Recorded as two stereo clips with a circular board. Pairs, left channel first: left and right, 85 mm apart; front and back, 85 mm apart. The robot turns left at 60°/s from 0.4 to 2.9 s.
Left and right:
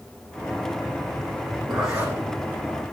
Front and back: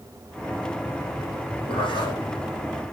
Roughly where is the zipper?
Ahead.